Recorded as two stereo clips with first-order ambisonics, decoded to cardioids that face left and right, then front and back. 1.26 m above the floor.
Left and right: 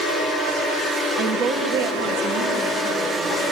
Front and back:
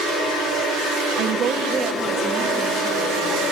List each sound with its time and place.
1.2 s a woman speaking: 140° right, 0.7 m; by 3.4 s 70° right, 2.0 m